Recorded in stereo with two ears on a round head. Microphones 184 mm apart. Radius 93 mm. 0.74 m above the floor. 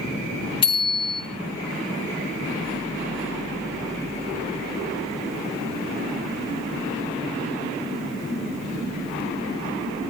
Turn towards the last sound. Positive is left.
turn(degrees=25)  # may be behind; listen again after turning